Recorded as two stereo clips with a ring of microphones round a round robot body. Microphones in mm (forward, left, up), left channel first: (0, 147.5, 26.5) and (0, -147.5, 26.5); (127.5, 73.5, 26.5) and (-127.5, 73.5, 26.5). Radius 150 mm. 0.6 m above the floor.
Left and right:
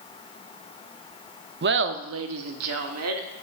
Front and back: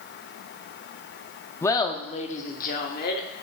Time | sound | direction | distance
1.6 | laughter | 75° right | 0.6 m